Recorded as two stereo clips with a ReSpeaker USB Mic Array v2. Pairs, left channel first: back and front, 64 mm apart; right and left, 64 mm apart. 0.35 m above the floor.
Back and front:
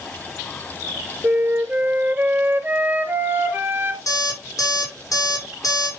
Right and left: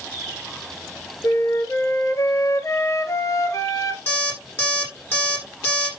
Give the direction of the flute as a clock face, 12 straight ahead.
2 o'clock.